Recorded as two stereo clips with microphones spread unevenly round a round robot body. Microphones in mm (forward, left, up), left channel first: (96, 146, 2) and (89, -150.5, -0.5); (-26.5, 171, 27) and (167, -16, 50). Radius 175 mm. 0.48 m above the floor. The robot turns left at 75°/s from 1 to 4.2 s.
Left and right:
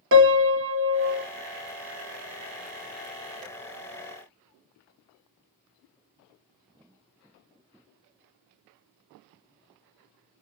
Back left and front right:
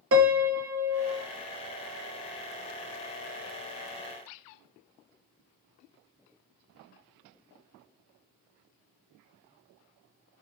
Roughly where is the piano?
Right.